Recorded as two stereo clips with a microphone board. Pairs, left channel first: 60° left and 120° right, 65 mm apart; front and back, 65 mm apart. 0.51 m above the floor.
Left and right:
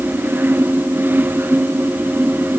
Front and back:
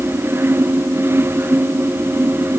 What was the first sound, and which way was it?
Only background noise.